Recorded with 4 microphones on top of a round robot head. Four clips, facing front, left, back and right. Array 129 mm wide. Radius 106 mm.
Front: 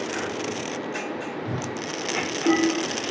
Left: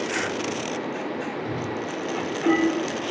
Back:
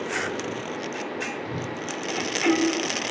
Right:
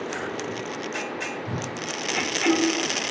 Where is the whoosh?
45° right, 2.5 m.